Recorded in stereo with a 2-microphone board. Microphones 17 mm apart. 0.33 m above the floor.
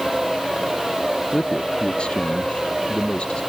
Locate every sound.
1.3 s a man speaking: 80° left; by 3.4 s 85° left